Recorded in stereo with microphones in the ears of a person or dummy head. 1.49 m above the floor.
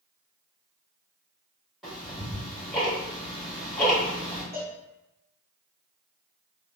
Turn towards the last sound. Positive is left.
turn(degrees=-20)  # may be behind; listen again after turning